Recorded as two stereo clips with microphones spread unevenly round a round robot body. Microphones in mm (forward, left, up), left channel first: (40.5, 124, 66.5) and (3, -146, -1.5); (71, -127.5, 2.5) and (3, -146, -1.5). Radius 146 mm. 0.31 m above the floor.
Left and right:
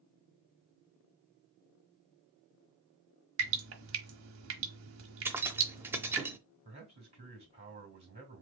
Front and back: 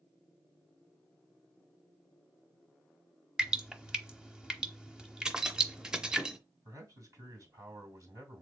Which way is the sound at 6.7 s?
150° right.